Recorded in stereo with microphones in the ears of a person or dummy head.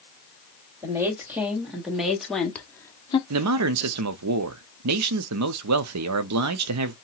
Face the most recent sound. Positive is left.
turn(degrees=-85)